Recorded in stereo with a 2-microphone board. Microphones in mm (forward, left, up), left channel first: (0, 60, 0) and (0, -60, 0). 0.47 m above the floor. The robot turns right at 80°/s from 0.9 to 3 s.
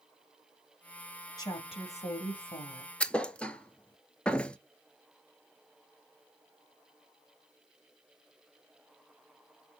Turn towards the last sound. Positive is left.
turn(degrees=10)  # may be behind; listen again after turning